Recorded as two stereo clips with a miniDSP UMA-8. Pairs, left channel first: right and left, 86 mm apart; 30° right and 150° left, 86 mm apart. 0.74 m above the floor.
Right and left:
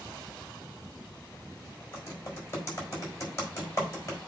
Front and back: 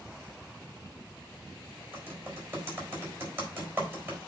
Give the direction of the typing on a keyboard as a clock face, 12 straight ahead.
5 o'clock.